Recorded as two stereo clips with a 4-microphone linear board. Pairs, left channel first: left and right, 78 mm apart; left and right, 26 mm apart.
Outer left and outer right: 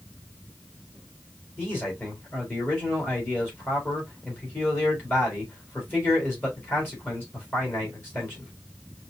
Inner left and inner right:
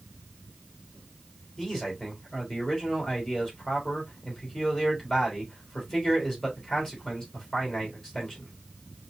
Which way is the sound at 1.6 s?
30° left (ahead or behind).